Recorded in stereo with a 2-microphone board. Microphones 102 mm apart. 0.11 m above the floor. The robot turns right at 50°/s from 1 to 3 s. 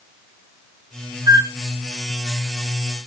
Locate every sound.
1.3 s a flute: 35° right (ahead or behind), 0.7 m